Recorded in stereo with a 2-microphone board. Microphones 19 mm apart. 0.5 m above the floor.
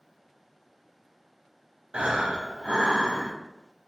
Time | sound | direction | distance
1.9 | breathing | 70° right (ahead or behind) | 0.5 m